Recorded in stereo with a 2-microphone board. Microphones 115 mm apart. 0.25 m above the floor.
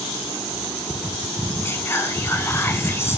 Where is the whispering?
20° left (ahead or behind), 2.5 m.